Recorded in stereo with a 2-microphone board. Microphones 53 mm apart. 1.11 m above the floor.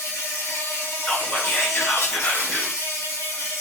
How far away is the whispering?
About 1.1 m.